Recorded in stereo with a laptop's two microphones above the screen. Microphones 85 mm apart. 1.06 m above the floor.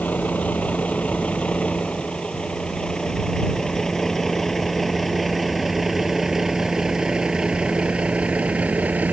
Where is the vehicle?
15° left (ahead or behind); by 9.1 s 20° right (ahead or behind).